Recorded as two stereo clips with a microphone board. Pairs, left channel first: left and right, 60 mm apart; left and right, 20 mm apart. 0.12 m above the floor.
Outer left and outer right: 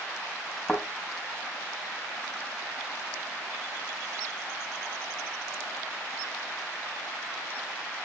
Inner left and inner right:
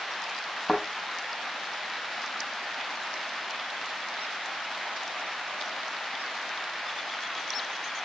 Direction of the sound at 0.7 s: 5° right (ahead or behind).